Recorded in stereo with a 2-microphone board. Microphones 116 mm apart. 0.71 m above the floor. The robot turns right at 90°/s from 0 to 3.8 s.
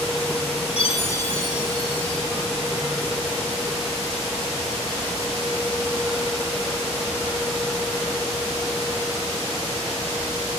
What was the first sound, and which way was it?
A chime, 115° left.